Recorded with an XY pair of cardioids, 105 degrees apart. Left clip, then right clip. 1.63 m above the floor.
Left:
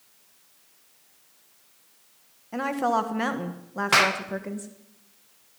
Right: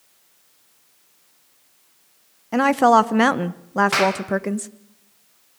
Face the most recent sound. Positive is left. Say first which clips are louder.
# right 1 dB
turn(degrees=20)